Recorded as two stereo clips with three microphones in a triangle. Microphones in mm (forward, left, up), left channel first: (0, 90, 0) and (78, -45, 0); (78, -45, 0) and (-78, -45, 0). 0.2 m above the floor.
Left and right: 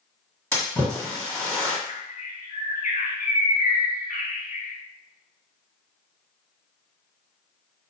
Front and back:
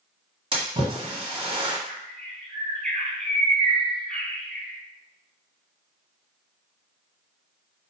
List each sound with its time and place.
0.5 s a splash: 165° right, 1.6 m
1.9 s a bird: 85° left, 1.4 m